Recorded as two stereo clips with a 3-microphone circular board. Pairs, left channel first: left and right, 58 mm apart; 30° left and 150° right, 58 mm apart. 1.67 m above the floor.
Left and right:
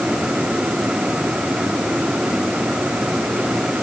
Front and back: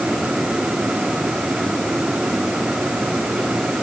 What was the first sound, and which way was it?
Only background noise.